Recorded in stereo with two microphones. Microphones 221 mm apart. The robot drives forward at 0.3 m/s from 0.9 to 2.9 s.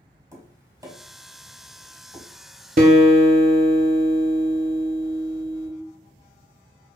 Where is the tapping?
15° right (ahead or behind), 0.9 m; by 2.2 s 10° right (ahead or behind), 1.2 m.